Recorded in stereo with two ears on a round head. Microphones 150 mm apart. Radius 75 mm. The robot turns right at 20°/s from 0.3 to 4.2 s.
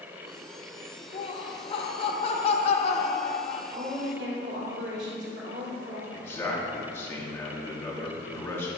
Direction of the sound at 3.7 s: 70° right (ahead or behind).